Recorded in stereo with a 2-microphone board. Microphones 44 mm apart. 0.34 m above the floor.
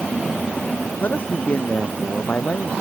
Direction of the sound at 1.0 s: 40° left (ahead or behind).